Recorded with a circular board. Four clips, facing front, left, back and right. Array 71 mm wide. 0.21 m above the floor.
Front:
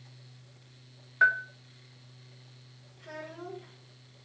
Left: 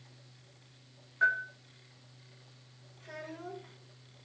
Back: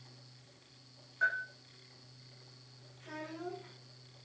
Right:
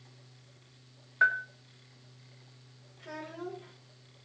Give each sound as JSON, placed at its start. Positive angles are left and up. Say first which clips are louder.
{"t": 1.2, "sound": "a bell", "louder": "right 2 dB, front 9 dB", "azimuth_deg": -35, "distance_m": 1.5}
{"t": 3.0, "sound": "a child speaking", "louder": "right 3 dB, front 1 dB", "azimuth_deg": -70, "distance_m": 7.0}